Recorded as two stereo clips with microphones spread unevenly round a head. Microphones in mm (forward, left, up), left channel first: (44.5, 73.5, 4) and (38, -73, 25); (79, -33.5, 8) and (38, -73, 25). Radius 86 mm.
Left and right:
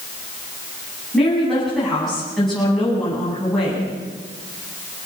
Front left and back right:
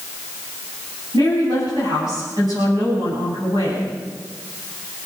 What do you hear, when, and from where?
1.1 s a woman speaking: 175° left, 9 m